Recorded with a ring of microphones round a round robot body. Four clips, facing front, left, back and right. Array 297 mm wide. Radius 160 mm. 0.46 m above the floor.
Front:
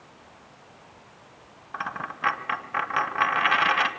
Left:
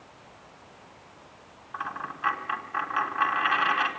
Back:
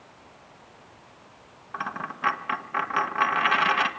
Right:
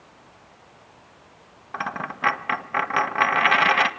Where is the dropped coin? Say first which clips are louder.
Right 5 dB, even; 85° right, 1.6 m.